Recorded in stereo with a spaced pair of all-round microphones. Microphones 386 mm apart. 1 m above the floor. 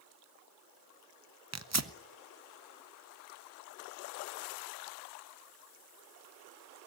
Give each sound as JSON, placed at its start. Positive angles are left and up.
{"t": 1.5, "sound": "tearing paper", "side_deg": -45, "distance_m": 0.8}